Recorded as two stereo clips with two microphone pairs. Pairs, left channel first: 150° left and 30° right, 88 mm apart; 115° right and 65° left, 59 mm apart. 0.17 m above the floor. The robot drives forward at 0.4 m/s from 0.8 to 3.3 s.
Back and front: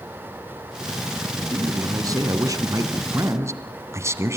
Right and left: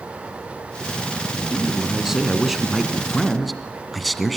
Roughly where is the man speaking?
Ahead.